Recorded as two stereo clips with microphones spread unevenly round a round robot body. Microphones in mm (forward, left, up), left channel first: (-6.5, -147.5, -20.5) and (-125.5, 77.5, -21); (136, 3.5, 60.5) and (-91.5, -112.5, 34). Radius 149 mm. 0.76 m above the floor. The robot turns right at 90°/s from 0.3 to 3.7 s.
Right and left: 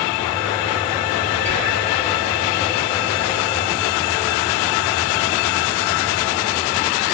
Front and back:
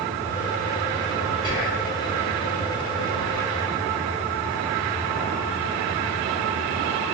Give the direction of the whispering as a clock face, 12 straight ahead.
2 o'clock.